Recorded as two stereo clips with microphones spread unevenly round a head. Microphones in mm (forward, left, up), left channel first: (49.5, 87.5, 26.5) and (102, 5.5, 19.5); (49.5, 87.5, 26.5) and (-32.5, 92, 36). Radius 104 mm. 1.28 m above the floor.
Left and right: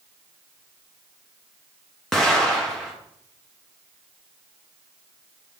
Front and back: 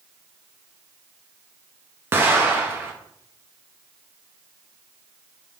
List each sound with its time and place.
2.1 s an explosion: 145° right, 0.5 m